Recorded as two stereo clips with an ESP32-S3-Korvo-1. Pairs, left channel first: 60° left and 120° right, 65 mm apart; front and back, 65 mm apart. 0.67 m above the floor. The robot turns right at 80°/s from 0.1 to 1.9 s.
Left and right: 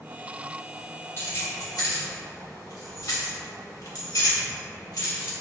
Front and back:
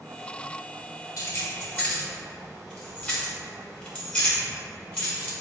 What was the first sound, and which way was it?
Keys jangling, 5° left.